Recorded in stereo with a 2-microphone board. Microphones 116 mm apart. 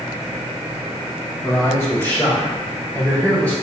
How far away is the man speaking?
About 1.6 m.